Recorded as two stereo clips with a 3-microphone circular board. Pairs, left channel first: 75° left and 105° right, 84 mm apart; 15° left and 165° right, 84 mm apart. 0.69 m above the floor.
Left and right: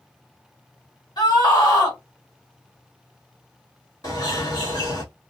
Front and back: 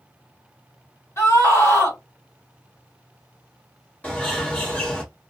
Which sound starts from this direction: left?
A bird, at 4.0 s.